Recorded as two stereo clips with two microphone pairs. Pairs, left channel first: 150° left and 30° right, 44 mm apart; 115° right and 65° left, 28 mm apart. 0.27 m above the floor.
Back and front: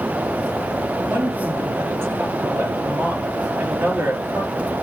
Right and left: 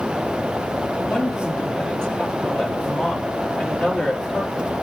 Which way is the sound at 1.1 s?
50° right.